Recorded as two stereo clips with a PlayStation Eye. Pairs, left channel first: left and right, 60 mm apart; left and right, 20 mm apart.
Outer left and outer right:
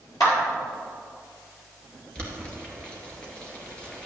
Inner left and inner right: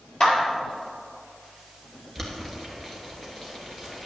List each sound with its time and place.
0.2 s a clap: 70° left (ahead or behind), 3.5 m
2.1 s boiling: 15° left (ahead or behind), 2 m